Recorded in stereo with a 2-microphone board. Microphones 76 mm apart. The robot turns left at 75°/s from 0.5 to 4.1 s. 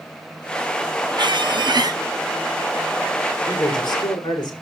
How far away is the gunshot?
I don't hear a gunshot.